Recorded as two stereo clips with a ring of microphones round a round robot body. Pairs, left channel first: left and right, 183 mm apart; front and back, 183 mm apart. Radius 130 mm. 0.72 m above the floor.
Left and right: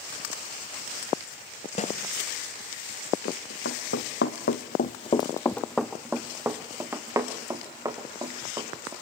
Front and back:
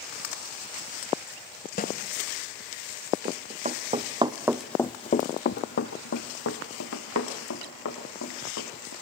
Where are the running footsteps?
135° left, 2.5 m; by 8.9 s 20° right, 6 m.